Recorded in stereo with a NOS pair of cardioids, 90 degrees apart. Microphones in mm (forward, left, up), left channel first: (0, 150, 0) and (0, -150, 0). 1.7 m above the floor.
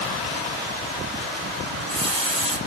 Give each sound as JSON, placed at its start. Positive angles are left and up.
{"t": 1.7, "sound": "a running tap", "azimuth_deg": -20, "distance_m": 5.0}